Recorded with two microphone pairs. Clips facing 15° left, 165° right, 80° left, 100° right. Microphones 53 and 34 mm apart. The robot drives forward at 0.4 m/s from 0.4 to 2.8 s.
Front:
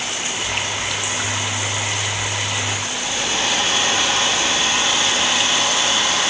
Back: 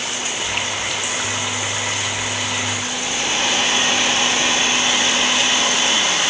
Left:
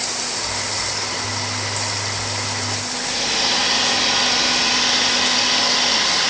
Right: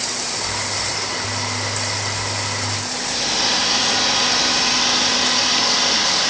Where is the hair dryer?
155° left, 4 m.